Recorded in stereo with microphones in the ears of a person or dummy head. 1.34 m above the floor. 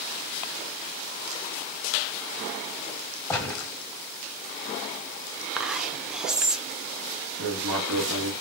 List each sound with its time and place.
3.3 s a gunshot: 10° left (ahead or behind), 1.7 m
5.6 s whispering: 5° left (ahead or behind), 0.6 m
7.4 s writing: 75° right (ahead or behind), 2 m